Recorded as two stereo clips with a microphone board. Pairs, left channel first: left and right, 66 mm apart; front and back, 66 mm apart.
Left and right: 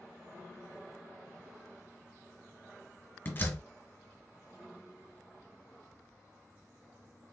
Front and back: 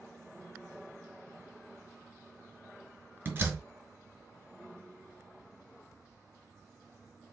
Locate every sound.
3.2 s a door slam: 135° left, 1.8 m